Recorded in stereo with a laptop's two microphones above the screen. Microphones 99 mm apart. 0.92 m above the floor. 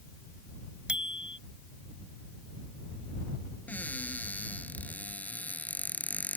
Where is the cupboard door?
15° left (ahead or behind).